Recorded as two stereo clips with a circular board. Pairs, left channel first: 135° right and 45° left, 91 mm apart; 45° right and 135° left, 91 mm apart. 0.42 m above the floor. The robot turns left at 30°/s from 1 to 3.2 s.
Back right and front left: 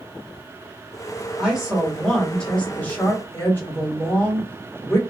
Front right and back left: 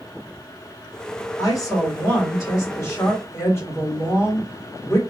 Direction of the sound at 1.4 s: 35° right.